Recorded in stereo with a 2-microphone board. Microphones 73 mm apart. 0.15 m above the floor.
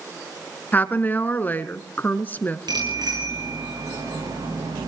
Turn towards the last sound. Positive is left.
turn(degrees=-85)